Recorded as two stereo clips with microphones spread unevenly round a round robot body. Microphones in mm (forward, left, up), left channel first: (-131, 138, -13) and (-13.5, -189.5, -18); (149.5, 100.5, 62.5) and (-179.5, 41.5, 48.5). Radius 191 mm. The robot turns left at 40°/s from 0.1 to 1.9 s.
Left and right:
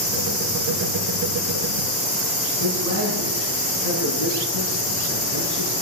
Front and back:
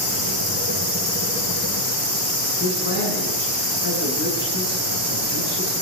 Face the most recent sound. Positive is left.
turn(degrees=70)